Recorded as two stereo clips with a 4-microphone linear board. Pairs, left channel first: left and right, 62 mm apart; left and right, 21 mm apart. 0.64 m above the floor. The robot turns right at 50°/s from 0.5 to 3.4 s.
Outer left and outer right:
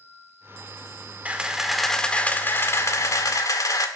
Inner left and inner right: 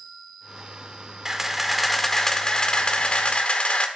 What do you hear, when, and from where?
1.2 s a camera shutter: 25° right, 1.6 m; by 3.9 s 80° left, 1.6 m